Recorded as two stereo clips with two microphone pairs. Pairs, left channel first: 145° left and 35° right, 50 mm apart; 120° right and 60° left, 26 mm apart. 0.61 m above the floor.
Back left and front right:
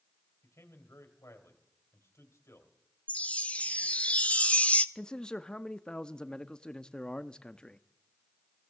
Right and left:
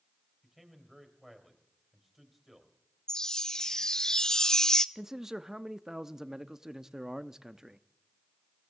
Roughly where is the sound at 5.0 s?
Left.